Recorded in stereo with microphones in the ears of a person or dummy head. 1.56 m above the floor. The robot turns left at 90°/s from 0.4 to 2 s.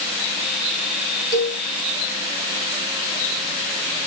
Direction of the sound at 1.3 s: 25° left (ahead or behind).